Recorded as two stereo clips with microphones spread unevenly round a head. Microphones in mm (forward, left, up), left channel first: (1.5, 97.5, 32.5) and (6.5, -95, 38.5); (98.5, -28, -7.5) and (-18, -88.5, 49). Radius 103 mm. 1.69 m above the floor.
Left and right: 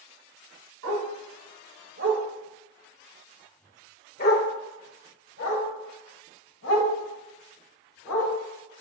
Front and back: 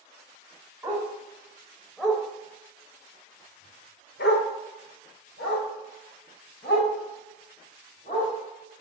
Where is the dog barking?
85° right, 4 m; by 8.3 s 80° left, 7.5 m.